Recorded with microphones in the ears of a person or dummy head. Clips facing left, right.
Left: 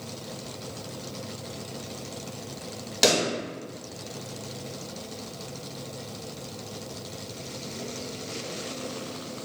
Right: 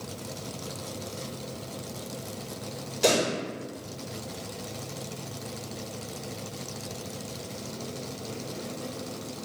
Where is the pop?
80° left, 1.6 m.